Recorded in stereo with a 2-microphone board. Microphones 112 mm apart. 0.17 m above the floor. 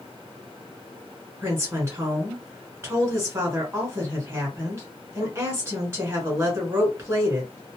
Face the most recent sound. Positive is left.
turn(degrees=-25)  # may be behind; listen again after turning